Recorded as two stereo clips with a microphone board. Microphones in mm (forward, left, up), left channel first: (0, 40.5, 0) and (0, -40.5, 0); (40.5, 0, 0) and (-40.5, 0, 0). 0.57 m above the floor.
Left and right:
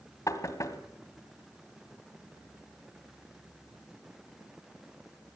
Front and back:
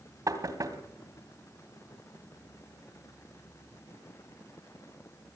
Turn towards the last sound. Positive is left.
turn(degrees=135)